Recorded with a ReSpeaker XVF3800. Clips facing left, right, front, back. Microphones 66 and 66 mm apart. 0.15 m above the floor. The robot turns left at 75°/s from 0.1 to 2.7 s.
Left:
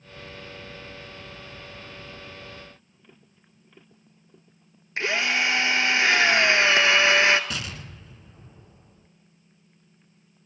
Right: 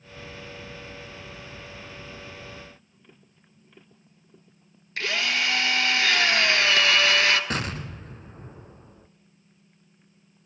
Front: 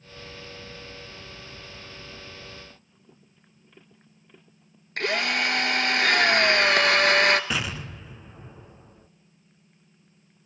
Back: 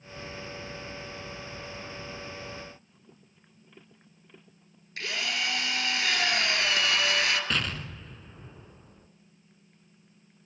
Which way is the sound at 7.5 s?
75° right.